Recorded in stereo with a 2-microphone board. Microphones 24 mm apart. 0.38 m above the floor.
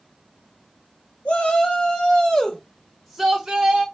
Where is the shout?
60° left (ahead or behind), 1.8 m; by 3.9 s 30° right (ahead or behind), 1.2 m.